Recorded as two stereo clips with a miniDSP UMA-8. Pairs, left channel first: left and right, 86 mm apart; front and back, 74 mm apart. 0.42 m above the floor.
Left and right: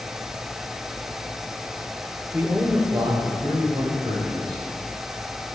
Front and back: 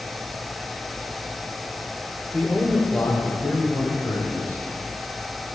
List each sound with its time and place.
2.3 s a man speaking: 45° right, 0.8 m; by 4.6 s 65° right, 4 m